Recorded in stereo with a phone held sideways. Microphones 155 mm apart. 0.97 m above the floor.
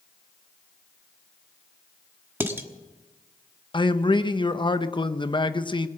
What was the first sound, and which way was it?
Dishes clattering, 15° right (ahead or behind).